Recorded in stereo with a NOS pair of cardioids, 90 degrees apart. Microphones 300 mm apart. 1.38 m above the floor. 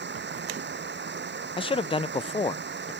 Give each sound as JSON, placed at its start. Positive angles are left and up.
{"t": 0.0, "sound": "running water", "azimuth_deg": -35}
{"t": 1.6, "sound": "a man speaking", "azimuth_deg": 15}